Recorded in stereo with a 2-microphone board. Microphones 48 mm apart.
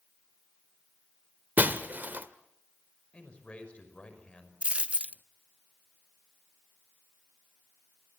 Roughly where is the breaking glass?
Right.